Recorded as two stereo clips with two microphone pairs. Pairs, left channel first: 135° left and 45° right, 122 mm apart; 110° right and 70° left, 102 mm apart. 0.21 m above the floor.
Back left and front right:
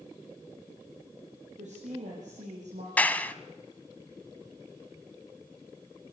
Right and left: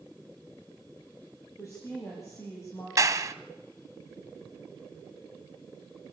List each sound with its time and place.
1.6 s a woman speaking: 50° right, 6.5 m; by 2.9 s 45° right, 6.5 m
3.0 s a clap: 65° left, 1.1 m